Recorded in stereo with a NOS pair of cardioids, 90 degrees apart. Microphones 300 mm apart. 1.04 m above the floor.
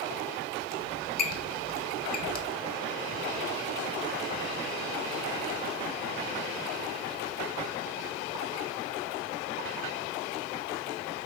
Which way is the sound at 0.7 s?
30° left.